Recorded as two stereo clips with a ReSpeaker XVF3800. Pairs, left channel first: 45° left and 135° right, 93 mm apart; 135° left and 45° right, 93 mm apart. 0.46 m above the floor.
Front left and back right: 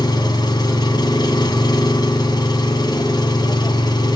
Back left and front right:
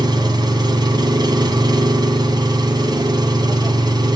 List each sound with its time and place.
0.0 s an engine running: straight ahead, 1.5 m